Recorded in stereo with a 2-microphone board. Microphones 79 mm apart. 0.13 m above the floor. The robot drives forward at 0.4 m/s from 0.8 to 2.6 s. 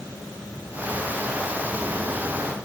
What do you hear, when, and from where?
Only background noise.